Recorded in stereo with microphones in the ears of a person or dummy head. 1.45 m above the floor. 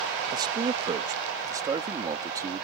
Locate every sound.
0.3 s a man speaking: 25° right (ahead or behind); by 2.6 s 20° right (ahead or behind)